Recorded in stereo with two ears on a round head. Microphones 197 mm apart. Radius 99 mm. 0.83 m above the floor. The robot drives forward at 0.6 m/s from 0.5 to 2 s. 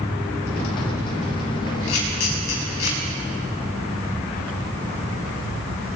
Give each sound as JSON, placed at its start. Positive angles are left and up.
{"t": 1.9, "sound": "a camera shutter", "side_deg": 85, "distance_m": 5.0}